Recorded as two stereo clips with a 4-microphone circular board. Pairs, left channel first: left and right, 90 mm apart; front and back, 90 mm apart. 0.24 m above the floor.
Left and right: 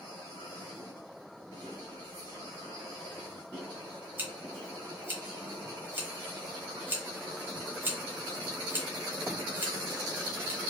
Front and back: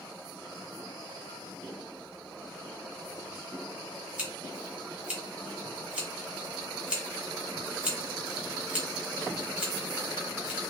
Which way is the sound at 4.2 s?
120° right.